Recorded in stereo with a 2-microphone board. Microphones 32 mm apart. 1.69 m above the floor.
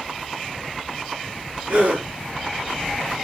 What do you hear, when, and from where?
1.7 s a gasp: 70° right (ahead or behind), 5.5 m